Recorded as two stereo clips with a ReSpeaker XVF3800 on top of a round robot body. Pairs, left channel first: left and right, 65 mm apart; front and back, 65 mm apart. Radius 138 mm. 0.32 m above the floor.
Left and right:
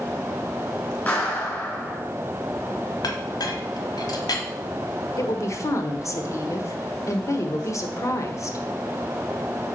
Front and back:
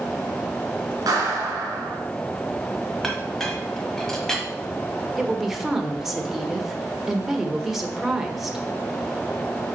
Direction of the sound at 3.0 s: 85° left.